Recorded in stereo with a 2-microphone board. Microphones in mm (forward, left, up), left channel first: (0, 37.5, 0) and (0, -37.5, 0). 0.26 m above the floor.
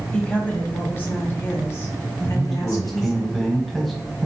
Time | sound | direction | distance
0.1 | a woman speaking | 15° left (ahead or behind) | 1.6 m
2.2 | a man speaking | centre (ahead or behind) | 1.7 m